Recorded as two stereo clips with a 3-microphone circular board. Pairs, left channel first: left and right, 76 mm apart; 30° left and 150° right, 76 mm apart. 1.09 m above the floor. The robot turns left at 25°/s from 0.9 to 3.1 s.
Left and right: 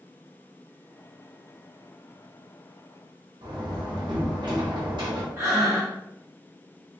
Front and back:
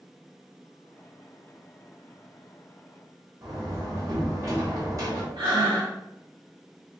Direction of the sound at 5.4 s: 140° right.